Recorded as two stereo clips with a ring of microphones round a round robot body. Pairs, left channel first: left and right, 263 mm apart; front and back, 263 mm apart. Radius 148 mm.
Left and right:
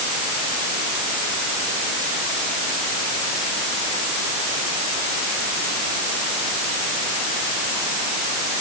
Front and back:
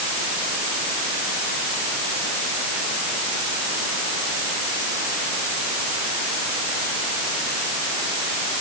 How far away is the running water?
No running water in this recording.